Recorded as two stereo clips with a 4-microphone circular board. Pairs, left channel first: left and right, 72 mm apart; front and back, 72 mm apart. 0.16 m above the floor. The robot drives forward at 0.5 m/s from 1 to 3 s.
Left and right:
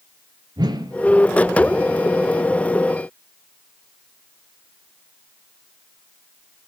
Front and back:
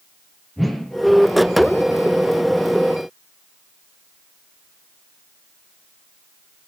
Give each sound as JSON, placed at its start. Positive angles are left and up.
{"t": 0.6, "sound": "a whoosh", "azimuth_deg": -90, "distance_m": 0.8}